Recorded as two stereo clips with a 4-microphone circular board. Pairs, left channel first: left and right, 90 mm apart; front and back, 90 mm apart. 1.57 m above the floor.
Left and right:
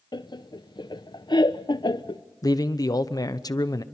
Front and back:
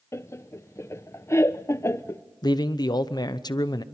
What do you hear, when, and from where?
0.1 s laughter: 55° left, 0.7 m
2.4 s a man speaking: 45° left, 0.9 m